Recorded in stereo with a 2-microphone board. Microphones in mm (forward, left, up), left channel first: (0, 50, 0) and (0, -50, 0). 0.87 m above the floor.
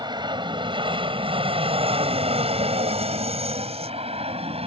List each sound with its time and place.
0.0 s an aircraft: 45° right (ahead or behind); by 4.7 s 70° right (ahead or behind)